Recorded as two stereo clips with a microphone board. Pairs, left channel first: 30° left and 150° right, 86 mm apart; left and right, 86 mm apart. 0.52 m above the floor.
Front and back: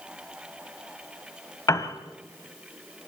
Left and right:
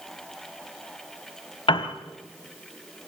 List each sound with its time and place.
1.7 s a piano: 80° left, 1.1 m